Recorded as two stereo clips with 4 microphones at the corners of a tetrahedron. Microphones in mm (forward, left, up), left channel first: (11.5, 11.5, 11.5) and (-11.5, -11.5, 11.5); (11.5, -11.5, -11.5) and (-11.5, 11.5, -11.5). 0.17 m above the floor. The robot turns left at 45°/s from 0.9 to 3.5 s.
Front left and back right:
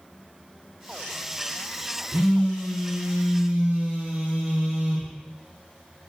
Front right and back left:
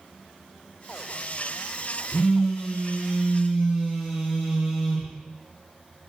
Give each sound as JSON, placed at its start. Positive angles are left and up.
{"t": 2.1, "sound": "a phone buzzing", "azimuth_deg": -110, "distance_m": 1.3}